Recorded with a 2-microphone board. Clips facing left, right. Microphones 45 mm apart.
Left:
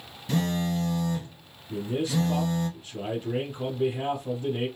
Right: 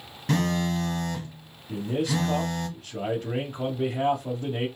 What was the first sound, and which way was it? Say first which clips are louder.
A phone buzzing: right 2 dB; 60° right (ahead or behind).